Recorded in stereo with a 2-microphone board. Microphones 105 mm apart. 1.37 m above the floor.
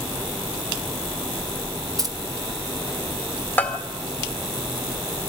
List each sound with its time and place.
2.0 s keys jangling: 35° right (ahead or behind), 1.9 m
3.6 s a bell: 15° left (ahead or behind), 2.0 m